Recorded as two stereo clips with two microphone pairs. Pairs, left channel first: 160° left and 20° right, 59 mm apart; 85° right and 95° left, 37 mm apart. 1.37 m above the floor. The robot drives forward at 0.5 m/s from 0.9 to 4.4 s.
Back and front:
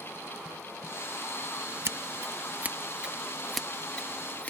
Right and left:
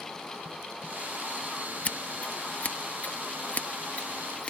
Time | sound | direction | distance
1.9 | scissors | 45° right | ?